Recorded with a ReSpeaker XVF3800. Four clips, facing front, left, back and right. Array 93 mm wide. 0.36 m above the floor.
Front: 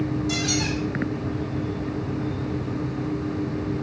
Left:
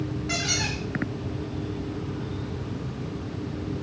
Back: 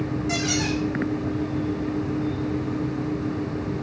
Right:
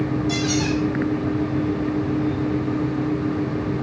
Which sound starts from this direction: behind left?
A squeak, at 0.3 s.